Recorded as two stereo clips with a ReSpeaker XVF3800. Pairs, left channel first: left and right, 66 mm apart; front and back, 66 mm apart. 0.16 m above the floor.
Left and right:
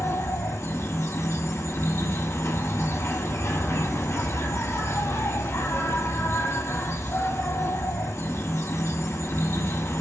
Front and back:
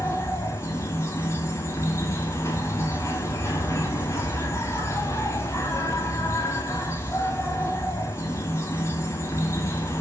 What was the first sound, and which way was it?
An insect, 40° left.